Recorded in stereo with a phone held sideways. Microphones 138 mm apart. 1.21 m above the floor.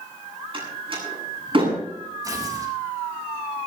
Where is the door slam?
40° right (ahead or behind), 8 m.